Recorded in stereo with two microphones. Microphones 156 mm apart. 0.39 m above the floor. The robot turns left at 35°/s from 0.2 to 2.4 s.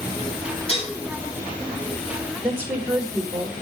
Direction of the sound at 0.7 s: 40° left (ahead or behind).